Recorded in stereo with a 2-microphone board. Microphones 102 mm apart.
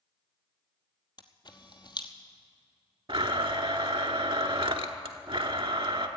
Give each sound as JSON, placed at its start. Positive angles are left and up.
{"t": 1.2, "sound": "a camera shutter", "side_deg": 45, "distance_m": 1.0}
{"t": 3.1, "sound": "a blender", "side_deg": -60, "distance_m": 0.9}